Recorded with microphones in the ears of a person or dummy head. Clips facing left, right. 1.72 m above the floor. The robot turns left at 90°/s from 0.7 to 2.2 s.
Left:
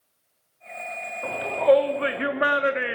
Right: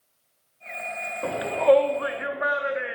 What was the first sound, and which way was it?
A shout, 35° right (ahead or behind).